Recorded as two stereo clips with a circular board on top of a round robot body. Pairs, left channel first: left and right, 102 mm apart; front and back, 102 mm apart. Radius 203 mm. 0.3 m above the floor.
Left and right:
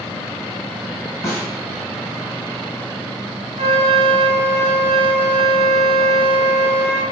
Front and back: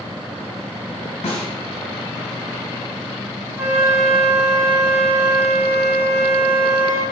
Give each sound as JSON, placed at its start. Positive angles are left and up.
{"t": 1.2, "sound": "a snare drum", "azimuth_deg": 25, "distance_m": 0.8}
{"t": 3.6, "sound": "a flute", "azimuth_deg": -105, "distance_m": 0.5}